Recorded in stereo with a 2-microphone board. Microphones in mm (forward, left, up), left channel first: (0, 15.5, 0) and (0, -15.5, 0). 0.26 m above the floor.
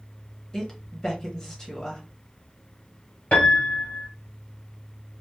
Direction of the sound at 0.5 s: 20° left (ahead or behind).